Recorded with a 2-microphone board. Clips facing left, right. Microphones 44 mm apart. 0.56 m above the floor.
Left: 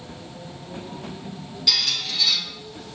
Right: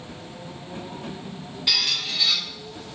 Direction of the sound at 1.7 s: 25° right (ahead or behind).